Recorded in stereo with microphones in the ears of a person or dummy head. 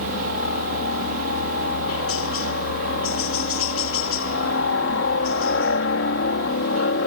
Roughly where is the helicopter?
Left.